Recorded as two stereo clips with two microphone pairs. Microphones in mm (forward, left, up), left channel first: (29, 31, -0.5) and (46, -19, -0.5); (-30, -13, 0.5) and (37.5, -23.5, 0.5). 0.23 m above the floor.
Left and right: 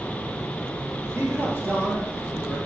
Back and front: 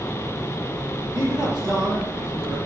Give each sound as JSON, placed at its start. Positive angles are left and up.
{"t": 1.1, "sound": "a man speaking", "azimuth_deg": -30, "distance_m": 5.0}